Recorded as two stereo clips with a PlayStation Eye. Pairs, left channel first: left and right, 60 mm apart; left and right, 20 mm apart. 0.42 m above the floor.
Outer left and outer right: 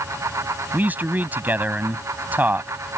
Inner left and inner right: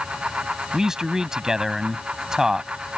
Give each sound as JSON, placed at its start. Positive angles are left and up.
{"t": 0.7, "sound": "a man speaking", "side_deg": -30}